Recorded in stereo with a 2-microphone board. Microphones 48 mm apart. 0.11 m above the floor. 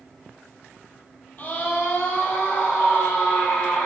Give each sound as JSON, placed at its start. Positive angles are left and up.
{"t": 1.4, "sound": "a scream", "side_deg": 35, "distance_m": 3.0}